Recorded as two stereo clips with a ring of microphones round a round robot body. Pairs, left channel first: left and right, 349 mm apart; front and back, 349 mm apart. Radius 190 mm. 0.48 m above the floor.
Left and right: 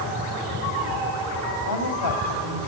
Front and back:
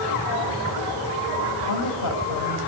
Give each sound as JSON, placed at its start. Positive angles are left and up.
{"t": 1.6, "sound": "a woman speaking", "azimuth_deg": 50, "distance_m": 2.5}